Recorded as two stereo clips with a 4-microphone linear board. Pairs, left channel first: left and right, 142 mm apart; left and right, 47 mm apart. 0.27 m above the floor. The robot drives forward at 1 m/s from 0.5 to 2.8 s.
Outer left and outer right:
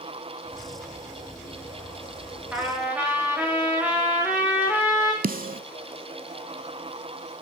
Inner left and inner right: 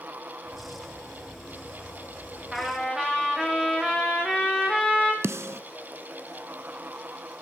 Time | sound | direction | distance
2.5 | a trumpet | 10° right (ahead or behind) | 7.5 m
5.2 | a snare drum | 85° right | 0.6 m